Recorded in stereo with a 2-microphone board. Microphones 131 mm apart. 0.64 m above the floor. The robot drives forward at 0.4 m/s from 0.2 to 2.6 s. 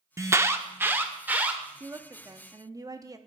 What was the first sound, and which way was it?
An alarm, 25° right (ahead or behind).